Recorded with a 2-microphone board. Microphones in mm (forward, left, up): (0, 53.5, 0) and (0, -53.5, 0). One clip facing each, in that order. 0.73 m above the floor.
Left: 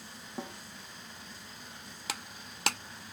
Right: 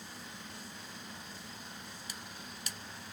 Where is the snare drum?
85° left.